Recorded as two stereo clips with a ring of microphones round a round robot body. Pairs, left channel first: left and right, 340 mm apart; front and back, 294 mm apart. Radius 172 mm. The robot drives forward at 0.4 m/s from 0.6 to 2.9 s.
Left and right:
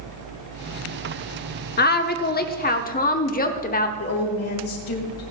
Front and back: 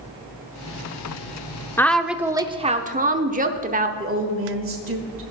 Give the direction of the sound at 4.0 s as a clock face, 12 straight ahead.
7 o'clock.